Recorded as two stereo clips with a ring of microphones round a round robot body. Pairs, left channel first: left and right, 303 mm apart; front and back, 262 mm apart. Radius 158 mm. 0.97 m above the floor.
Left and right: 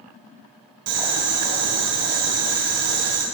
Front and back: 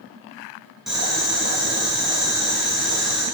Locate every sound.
0.9 s boiling: 90° right, 3.5 m